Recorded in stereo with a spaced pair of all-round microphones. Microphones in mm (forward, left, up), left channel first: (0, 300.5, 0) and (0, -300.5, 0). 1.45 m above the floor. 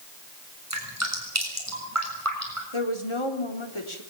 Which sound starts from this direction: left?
A woman speaking, at 2.7 s.